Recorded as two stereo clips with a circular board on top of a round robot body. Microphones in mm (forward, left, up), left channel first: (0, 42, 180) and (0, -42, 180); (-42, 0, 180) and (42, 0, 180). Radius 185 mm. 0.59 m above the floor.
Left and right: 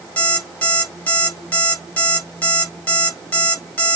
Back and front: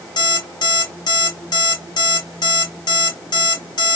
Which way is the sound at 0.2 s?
165° left.